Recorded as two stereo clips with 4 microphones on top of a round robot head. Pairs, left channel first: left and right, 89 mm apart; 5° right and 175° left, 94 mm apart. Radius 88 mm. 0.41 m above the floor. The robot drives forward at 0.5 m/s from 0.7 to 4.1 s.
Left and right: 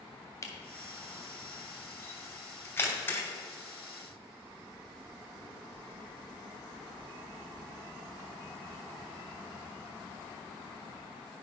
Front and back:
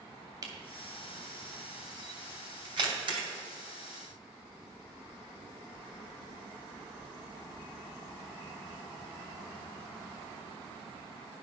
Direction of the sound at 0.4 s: 135° left.